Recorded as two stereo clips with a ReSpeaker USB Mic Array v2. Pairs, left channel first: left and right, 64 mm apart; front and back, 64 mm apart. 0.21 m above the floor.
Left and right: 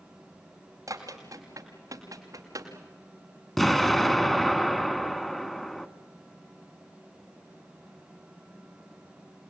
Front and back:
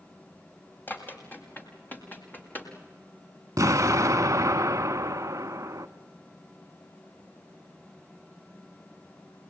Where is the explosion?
175° left, 0.8 m.